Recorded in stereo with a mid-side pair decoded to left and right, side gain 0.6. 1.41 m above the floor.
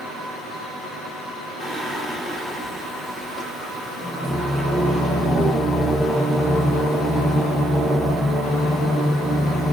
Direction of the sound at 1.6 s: 5° left.